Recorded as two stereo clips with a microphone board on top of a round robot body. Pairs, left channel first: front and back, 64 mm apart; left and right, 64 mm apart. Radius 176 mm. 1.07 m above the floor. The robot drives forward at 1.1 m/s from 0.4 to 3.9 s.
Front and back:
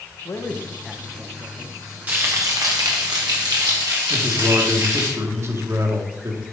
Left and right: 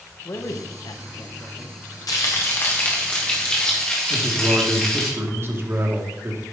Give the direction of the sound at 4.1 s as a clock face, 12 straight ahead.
5 o'clock.